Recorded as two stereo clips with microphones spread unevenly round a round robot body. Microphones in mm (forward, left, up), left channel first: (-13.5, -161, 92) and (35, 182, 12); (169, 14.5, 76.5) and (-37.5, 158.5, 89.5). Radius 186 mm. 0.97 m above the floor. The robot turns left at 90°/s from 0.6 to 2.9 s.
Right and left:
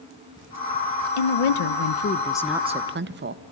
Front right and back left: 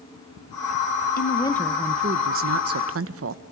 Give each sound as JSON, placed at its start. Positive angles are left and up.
{"t": 1.2, "sound": "a woman speaking", "azimuth_deg": -80, "distance_m": 1.1}